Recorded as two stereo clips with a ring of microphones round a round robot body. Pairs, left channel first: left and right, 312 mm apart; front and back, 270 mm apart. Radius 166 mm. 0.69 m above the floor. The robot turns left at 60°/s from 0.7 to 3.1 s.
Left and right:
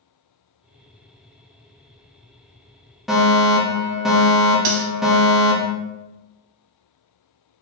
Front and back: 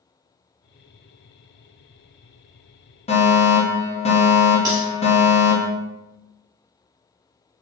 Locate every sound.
3.1 s a fire alarm: 5° right, 1.4 m
4.7 s cutlery clinking: 100° right, 1.1 m